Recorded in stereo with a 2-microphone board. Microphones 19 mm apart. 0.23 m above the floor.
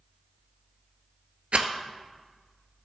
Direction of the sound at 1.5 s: 80° right.